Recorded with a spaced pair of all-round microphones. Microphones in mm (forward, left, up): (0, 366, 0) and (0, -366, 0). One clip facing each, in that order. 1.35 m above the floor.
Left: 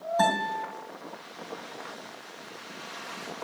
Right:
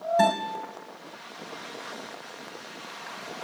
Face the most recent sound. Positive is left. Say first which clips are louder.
# right 1 dB
turn(degrees=-50)  # may be behind; listen again after turning